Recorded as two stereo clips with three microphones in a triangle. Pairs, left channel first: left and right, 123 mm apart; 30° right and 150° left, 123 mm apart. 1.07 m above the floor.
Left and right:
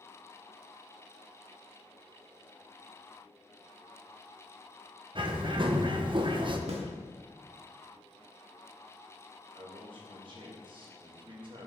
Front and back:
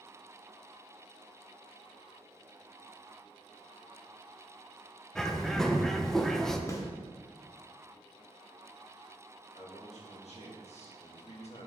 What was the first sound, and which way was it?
A bird, 115° right.